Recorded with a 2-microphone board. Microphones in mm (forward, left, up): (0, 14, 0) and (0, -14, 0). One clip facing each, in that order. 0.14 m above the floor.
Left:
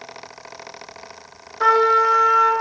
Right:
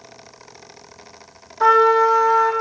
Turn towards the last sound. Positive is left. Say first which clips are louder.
# right 2 dB
turn(degrees=15)  # may be behind; listen again after turning